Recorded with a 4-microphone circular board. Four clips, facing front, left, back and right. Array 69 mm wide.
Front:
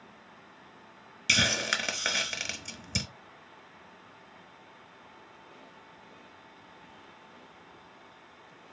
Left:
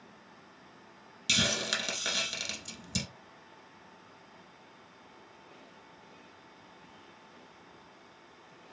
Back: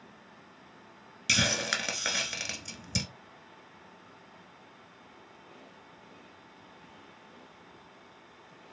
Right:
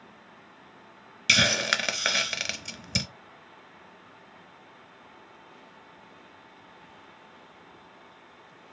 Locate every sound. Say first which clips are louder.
1.3 s a hiss: right 8 dB, front 2 dB; 90° right, 0.8 m